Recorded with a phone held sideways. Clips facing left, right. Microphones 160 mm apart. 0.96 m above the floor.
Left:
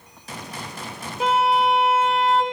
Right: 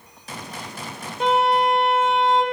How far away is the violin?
About 0.7 m.